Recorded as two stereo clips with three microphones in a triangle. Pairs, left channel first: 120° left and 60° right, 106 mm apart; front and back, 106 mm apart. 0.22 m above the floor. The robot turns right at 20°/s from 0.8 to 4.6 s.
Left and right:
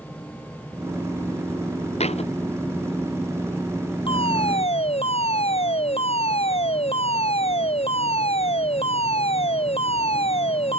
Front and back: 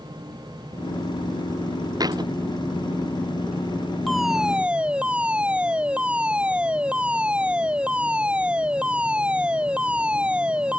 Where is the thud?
125° left; by 2.3 s 135° left.